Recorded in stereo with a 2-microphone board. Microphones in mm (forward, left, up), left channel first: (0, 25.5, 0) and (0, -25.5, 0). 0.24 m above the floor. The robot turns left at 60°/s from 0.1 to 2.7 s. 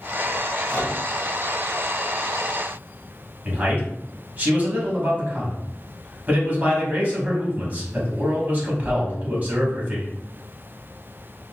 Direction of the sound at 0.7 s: 50° left (ahead or behind).